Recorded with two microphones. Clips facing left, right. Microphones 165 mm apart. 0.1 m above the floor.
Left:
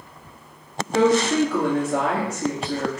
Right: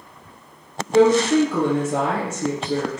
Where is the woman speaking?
30° right (ahead or behind), 1.9 m.